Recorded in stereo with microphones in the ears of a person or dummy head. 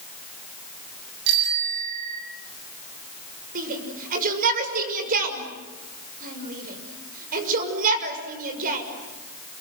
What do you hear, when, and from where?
1.3 s a bicycle bell: 60° right (ahead or behind), 8 m
3.5 s a shout: 50° right (ahead or behind), 6 m